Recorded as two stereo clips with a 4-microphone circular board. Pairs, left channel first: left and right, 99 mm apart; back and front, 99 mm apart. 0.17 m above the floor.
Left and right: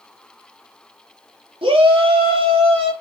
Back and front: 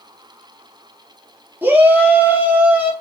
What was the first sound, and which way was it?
A shout, 70° right.